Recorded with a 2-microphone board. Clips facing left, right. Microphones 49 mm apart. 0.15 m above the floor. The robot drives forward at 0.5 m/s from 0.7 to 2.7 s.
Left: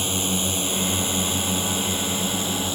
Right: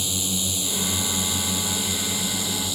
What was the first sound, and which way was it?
A drone, 40° left (ahead or behind).